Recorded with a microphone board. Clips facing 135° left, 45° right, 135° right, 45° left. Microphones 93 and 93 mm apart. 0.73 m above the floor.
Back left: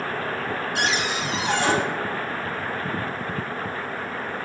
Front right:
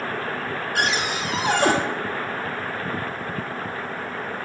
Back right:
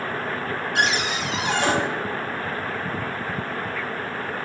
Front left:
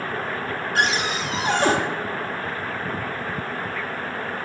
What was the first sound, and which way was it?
A cupboard door, 5° right.